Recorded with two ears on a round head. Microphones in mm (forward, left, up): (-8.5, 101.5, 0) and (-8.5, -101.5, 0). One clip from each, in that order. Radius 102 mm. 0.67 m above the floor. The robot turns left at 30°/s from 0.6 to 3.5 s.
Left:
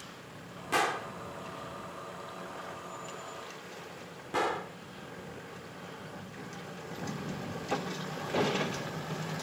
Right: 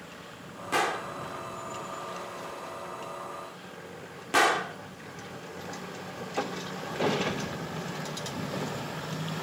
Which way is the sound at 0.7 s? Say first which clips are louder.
Right 2 dB; 5° left (ahead or behind).